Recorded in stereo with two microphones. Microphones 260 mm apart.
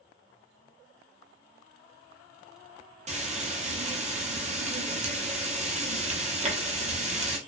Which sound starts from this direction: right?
Frying, at 3.1 s.